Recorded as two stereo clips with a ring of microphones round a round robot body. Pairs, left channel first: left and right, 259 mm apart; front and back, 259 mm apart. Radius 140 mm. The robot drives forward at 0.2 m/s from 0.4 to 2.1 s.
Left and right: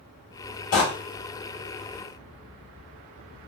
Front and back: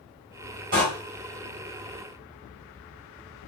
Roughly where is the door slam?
Behind left.